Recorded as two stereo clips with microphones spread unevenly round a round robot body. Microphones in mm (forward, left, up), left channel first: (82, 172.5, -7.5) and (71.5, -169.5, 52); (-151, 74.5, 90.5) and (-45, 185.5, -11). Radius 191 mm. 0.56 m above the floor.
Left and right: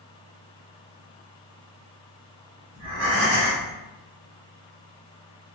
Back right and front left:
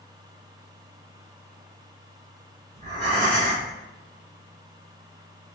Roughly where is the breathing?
Ahead right.